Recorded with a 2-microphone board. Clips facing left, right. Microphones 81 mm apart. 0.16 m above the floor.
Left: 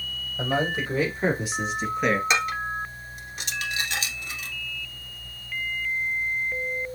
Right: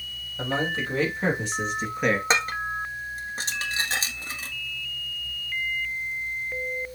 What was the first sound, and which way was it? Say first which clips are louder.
A man speaking: left 2 dB; 15° left (ahead or behind).